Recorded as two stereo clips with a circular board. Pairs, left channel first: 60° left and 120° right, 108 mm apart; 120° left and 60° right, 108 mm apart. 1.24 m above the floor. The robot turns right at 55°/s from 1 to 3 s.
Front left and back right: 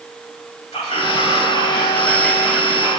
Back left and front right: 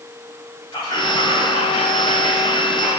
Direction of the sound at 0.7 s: 70° left.